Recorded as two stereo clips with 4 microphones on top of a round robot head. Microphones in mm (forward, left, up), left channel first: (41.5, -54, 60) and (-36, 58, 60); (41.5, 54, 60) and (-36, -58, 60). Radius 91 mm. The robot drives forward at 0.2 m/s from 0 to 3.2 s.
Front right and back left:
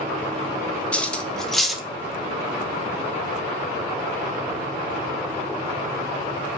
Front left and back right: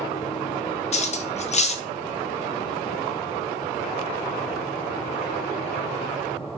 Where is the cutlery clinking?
25° left, 0.6 m; by 1.8 s 35° left, 0.5 m.